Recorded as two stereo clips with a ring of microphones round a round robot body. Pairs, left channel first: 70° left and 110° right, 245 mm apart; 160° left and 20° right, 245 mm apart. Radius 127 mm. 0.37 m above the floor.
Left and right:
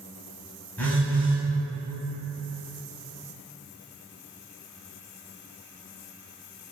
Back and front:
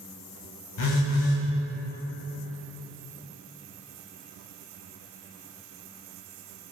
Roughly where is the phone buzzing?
Behind left.